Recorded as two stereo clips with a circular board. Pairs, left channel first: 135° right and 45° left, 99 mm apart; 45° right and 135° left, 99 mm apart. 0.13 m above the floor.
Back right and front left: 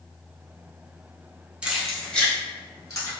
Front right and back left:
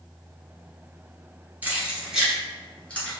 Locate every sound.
1.6 s keys jangling: 105° left, 1.0 m; by 3.1 s 110° right, 1.3 m